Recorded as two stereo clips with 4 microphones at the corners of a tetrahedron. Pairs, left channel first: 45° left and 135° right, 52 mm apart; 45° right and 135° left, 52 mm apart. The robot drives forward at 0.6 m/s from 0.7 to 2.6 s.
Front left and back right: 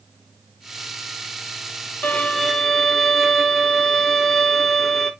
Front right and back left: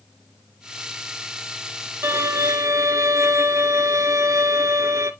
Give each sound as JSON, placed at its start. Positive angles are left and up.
{"t": 2.0, "sound": "a violin", "azimuth_deg": 105, "distance_m": 0.5}